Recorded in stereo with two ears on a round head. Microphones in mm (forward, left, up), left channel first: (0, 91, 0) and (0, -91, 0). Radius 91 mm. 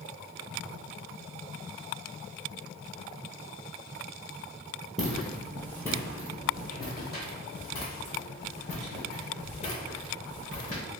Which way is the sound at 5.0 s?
Centre (ahead or behind).